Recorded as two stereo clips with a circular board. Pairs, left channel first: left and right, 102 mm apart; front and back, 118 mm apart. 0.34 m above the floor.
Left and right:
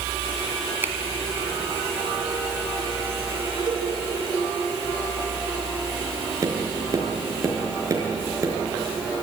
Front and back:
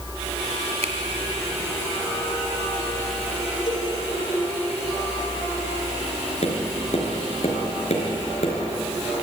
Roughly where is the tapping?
Ahead right.